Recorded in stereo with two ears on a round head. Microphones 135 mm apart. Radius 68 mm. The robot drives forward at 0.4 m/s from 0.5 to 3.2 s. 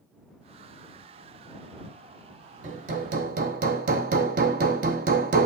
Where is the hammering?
50° right (ahead or behind), 1.0 m; by 5.5 s 60° right (ahead or behind), 0.9 m.